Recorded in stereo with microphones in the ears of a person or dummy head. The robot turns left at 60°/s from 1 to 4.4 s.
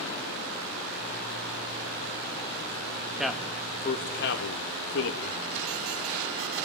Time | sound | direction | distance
3.2 | a man speaking | 5° right (ahead or behind) | 1.8 m